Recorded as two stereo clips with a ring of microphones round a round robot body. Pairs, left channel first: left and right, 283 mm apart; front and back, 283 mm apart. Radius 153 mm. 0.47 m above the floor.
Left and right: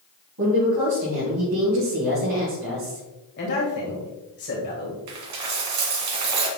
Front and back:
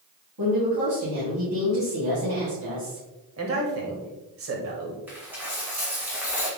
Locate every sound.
0.4 s a woman speaking: 135° right, 3.5 m
3.4 s a man speaking: 145° left, 1.9 m
5.1 s a dropped coin: 95° right, 1.6 m